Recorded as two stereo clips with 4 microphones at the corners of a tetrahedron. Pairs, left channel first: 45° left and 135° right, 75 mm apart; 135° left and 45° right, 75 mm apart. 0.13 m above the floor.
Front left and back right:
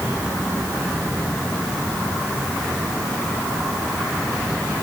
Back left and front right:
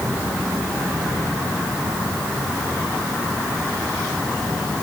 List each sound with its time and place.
Only background noise.